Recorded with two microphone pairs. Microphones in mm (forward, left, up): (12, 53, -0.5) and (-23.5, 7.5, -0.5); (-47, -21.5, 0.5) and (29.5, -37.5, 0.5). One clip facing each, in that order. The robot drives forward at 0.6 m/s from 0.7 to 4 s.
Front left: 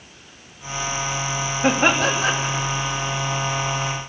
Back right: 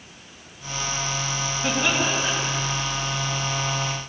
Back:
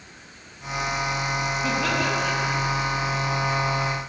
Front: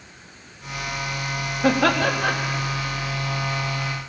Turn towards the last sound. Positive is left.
turn(degrees=20)